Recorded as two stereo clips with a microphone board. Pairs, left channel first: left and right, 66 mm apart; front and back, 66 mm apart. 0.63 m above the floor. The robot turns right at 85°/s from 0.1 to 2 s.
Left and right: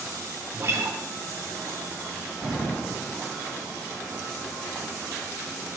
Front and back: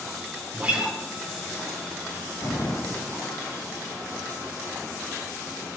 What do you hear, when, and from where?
0.5 s a guitar: 130° right, 0.7 m; by 1.0 s 90° right, 0.7 m
2.4 s an explosion: 10° left, 2 m